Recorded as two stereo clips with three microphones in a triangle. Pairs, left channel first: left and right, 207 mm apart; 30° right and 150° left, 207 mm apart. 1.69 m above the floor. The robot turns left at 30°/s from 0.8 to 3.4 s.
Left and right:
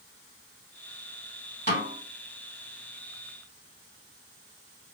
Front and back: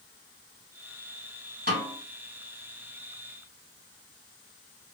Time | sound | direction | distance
1.7 | a snare drum | 115° left | 2.5 m